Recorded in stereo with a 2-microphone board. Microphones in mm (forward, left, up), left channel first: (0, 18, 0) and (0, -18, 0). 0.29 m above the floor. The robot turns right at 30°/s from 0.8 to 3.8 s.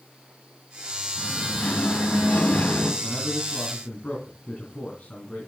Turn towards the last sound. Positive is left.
turn(degrees=40)  # may be behind; listen again after turning